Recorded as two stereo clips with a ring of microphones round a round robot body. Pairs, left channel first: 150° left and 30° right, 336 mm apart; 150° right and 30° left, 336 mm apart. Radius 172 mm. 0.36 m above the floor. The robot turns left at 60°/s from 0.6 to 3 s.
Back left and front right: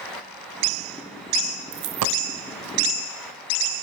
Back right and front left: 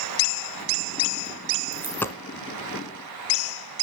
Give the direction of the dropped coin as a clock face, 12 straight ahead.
2 o'clock.